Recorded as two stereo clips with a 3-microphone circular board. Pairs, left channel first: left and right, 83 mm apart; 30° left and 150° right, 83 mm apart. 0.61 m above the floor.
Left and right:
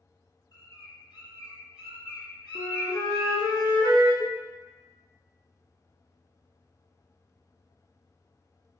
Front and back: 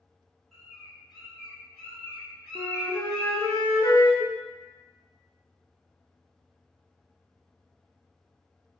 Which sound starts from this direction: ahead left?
A cowbell, at 4.2 s.